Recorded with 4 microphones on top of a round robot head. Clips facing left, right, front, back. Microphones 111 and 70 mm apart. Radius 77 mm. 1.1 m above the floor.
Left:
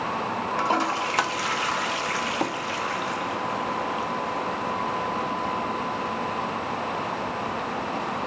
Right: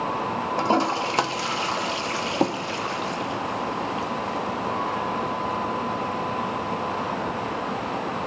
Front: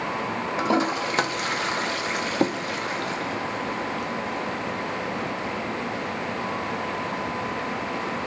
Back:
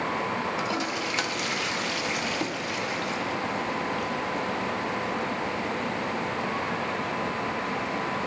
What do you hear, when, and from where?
0.6 s a toilet flushing: 35° right, 0.7 m